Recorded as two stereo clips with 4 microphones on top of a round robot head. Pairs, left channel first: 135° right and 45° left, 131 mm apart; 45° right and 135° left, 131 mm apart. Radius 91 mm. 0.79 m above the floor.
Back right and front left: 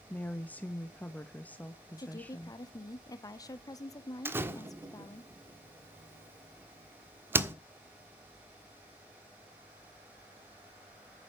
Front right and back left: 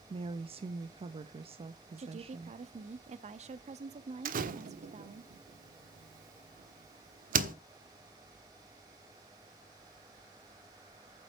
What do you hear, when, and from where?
0.1 s a woman speaking: 150° left, 0.8 m
2.0 s a woman speaking: 165° left, 1.2 m
4.2 s a door slam: 120° left, 1.4 m